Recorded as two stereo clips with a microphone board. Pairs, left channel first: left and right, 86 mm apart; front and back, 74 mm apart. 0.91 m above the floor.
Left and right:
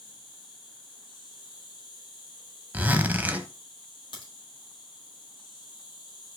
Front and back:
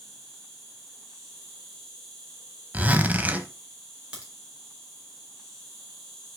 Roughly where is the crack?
Left.